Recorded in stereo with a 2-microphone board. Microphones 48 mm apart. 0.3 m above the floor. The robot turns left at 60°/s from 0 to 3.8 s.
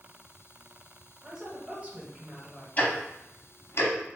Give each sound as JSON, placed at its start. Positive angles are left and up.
{"t": 1.2, "sound": "a woman speaking", "side_deg": -15, "distance_m": 1.1}
{"t": 2.8, "sound": "ticking", "side_deg": 30, "distance_m": 0.8}